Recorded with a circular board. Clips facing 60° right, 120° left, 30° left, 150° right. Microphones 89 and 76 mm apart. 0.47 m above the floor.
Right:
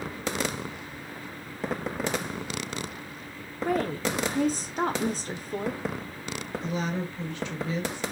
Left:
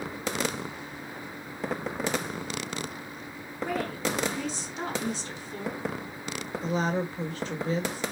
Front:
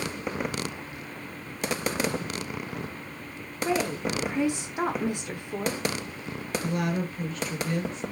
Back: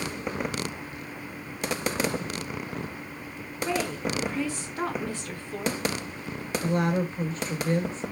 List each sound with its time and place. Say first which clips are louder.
3.6 s a woman speaking: right 4 dB, front 2 dB; 40° right, 1.1 m
6.6 s a woman speaking: left 4 dB, back 4 dB; 165° left, 2 m